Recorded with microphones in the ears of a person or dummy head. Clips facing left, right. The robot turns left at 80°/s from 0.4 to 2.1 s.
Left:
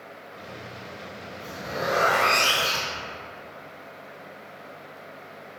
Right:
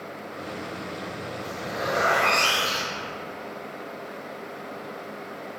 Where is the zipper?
Straight behind, 0.7 m; by 3.0 s 125° left, 0.7 m.